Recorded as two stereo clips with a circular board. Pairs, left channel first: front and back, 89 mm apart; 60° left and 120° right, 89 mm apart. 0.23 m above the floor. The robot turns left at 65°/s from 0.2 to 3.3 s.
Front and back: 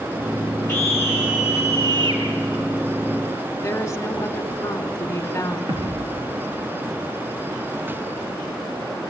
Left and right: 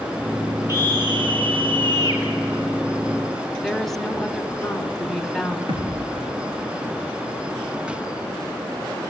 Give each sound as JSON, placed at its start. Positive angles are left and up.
{"t": 0.7, "sound": "a scream", "azimuth_deg": -55, "distance_m": 6.0}
{"t": 3.6, "sound": "a woman speaking", "azimuth_deg": -25, "distance_m": 1.4}
{"t": 5.7, "sound": "a thud", "azimuth_deg": -135, "distance_m": 5.0}